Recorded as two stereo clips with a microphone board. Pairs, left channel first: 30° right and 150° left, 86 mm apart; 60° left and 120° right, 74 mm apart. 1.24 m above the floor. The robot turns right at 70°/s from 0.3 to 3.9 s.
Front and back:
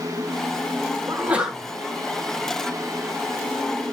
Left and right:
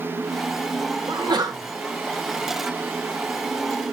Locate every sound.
1.1 s a sneeze: 155° right, 2.5 m; by 1.6 s 115° right, 2.5 m